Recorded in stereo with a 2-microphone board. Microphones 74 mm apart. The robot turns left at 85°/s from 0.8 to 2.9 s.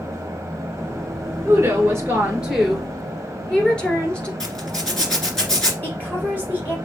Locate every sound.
1.4 s a woman speaking: 80° right, 2 m; by 4.3 s 155° left, 2 m
4.4 s a zipper: 10° left (ahead or behind), 1.8 m
5.8 s a woman speaking: 25° left (ahead or behind), 3 m